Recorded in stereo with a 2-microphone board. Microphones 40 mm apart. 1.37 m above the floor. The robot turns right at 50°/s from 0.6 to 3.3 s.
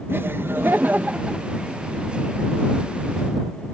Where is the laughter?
60° right; by 1.5 s 20° right.